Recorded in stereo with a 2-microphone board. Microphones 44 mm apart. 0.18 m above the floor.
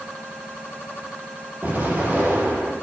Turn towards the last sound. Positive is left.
turn(degrees=-45)  # may be behind; listen again after turning